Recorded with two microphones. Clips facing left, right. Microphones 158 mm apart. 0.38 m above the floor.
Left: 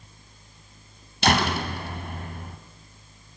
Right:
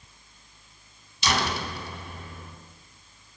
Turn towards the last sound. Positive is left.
turn(degrees=65)  # may be behind; listen again after turning